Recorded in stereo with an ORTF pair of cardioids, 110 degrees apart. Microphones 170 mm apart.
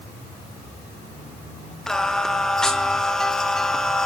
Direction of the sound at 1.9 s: 5° left.